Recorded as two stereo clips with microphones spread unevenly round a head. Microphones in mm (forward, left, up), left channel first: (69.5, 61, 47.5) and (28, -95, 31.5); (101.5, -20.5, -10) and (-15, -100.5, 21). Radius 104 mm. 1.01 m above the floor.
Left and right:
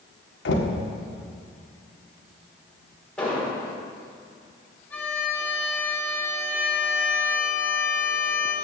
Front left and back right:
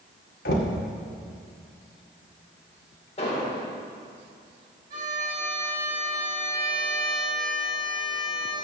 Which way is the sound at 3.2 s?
10° right.